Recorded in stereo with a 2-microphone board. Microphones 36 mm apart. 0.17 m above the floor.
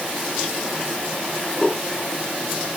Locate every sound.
Only background noise.